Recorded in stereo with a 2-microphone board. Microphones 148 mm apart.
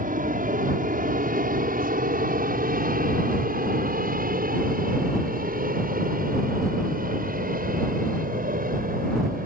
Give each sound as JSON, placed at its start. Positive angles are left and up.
{"t": 0.0, "sound": "an aircraft", "side_deg": -70}